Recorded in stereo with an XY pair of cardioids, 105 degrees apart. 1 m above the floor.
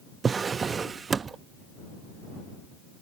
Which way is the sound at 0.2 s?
35° right.